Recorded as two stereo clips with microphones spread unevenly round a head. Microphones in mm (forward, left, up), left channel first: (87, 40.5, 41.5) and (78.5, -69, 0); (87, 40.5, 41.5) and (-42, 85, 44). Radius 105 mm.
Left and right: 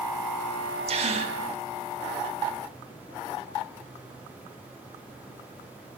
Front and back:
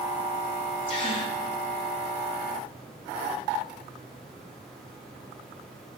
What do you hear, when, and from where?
0.9 s a gasp: 80° right, 0.6 m